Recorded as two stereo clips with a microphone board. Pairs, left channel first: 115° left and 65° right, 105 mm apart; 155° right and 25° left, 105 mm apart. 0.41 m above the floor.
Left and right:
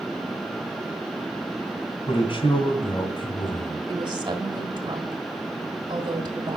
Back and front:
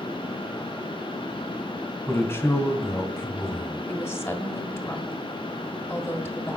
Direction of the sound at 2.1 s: 140° left.